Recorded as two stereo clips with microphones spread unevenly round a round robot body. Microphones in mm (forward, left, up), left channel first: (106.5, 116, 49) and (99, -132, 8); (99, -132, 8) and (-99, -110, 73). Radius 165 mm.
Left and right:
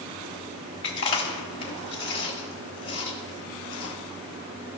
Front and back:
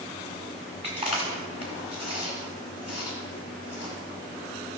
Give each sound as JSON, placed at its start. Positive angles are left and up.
{"t": 0.8, "sound": "chewing", "azimuth_deg": 120, "distance_m": 1.2}